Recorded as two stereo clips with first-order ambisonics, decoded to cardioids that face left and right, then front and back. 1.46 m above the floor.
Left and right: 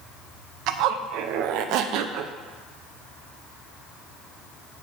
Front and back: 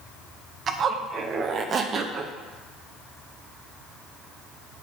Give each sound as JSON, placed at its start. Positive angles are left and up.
{"t": 0.7, "sound": "a zipper", "azimuth_deg": -120, "distance_m": 0.8}